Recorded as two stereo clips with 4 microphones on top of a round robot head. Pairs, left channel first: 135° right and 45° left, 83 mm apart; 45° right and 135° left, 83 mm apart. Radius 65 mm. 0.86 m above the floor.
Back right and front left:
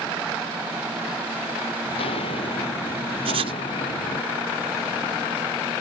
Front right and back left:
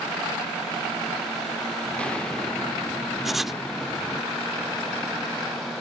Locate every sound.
1.9 s footsteps: 125° right
3.2 s writing: 50° left